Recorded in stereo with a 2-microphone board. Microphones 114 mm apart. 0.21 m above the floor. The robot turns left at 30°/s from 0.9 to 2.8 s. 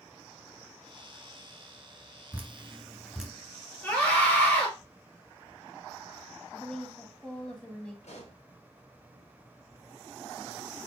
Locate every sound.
2.3 s dripping: 20° right (ahead or behind), 1.1 m; by 3.3 s 5° right (ahead or behind), 1.1 m
3.8 s a scream: 20° left (ahead or behind), 3.5 m
6.5 s a woman speaking: 10° left (ahead or behind), 1.5 m
8.0 s a pop: 75° left (ahead or behind), 2.5 m